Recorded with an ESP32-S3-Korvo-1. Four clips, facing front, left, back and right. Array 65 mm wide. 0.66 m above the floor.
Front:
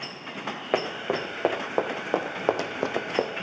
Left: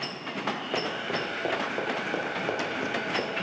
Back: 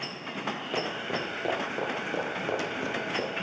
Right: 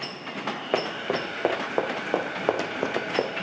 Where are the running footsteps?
35° right, 4 m; by 3.3 s 40° right, 1.6 m.